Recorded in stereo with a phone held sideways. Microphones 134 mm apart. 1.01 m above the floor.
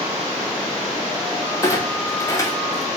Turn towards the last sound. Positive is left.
turn(degrees=25)  # may be behind; listen again after turning